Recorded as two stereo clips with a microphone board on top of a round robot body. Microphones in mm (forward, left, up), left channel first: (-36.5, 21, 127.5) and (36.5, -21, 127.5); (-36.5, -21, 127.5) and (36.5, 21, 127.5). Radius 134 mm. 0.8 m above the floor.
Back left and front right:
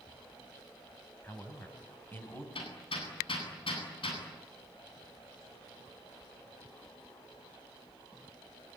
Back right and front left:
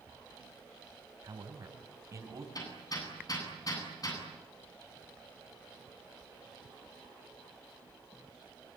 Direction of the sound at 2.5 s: 165° left.